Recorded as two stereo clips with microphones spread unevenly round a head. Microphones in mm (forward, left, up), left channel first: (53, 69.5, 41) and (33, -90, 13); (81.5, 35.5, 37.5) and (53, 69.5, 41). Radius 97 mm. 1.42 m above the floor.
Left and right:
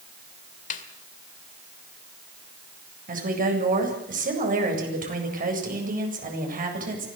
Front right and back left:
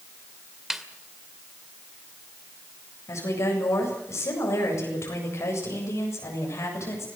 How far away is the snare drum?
About 2 m.